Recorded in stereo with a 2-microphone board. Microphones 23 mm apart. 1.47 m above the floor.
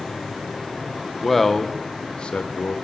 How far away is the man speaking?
About 0.9 m.